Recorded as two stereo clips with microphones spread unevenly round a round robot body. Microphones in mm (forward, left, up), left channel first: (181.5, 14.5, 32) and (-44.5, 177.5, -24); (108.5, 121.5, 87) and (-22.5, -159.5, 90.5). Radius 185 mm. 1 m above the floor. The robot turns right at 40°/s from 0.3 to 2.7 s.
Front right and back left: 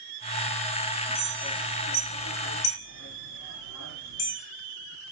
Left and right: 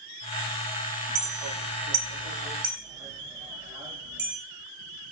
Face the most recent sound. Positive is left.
turn(degrees=-40)